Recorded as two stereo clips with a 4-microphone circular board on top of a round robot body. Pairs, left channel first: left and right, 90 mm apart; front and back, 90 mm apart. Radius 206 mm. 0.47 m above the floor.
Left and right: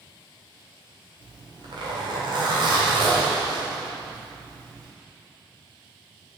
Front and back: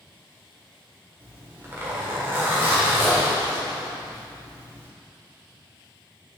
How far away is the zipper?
About 1.7 m.